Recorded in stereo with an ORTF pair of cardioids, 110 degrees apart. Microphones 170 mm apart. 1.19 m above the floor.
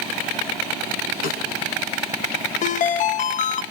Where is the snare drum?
65° left, 5.5 m.